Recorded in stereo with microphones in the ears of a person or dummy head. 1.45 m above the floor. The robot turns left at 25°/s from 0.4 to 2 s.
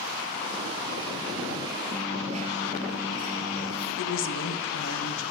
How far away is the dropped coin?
About 6 m.